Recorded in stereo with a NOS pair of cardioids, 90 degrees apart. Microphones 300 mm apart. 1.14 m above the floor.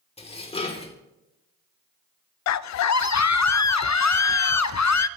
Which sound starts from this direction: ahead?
Dishes clattering, at 0.2 s.